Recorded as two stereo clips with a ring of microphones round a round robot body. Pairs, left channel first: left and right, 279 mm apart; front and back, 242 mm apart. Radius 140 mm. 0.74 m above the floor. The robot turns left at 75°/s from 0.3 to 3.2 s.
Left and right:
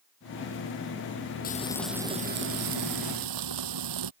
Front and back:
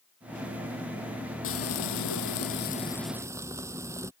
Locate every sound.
1.4 s frying: 30° left; by 4.1 s 100° right